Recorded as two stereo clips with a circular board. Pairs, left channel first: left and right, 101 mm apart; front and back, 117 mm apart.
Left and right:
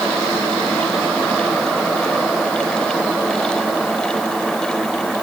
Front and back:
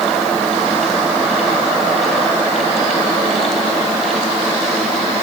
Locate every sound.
Only background noise.